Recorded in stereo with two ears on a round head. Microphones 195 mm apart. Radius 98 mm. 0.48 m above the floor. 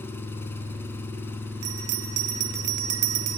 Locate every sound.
0.0 s an engine running: 10° left (ahead or behind), 4 m
1.6 s a bell: 75° right (ahead or behind), 1.4 m